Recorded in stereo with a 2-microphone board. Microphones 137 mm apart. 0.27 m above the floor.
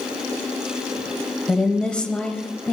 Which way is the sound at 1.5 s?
10° left (ahead or behind).